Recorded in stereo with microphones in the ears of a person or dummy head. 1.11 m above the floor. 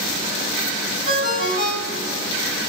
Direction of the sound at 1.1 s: 30° right (ahead or behind).